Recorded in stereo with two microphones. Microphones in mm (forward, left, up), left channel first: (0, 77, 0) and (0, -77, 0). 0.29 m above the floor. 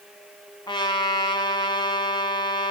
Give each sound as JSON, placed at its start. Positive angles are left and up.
{"t": 0.7, "sound": "a trumpet", "side_deg": 30, "distance_m": 1.3}